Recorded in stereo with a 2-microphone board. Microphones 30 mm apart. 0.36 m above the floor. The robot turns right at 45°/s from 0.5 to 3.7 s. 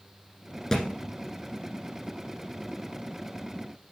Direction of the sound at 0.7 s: 20° left (ahead or behind).